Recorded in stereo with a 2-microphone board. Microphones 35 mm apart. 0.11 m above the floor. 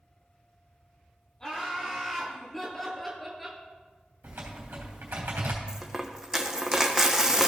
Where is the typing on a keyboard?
80° right, 3.5 m.